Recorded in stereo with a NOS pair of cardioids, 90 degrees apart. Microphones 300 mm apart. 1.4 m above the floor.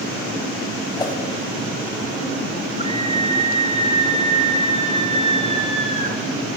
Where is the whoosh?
15° left, 6 m.